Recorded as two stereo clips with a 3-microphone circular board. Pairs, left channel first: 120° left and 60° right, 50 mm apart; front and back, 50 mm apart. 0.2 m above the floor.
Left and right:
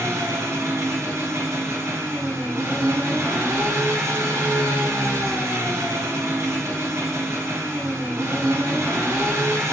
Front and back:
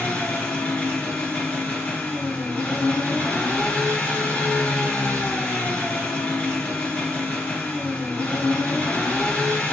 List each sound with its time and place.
0.0 s an engine running: 60° right, 2.5 m